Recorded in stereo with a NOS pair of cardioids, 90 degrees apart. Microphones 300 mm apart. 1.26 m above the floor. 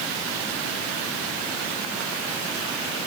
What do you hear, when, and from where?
Only background noise.